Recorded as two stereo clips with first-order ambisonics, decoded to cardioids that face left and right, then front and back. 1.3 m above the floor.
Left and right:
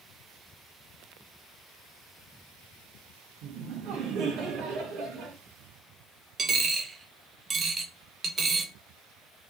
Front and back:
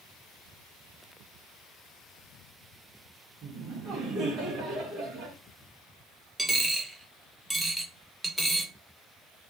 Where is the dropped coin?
100° right, 0.6 m.